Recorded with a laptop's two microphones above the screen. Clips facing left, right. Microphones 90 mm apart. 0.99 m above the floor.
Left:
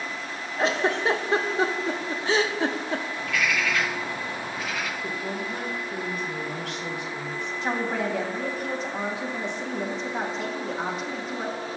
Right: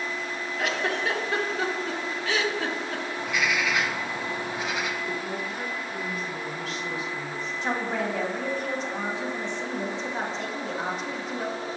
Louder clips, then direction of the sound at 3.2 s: Right 2 dB; 20° right (ahead or behind).